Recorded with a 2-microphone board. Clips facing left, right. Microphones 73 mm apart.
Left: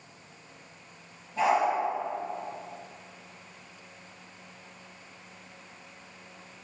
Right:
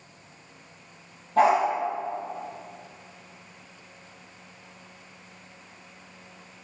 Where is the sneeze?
No sneeze in this recording.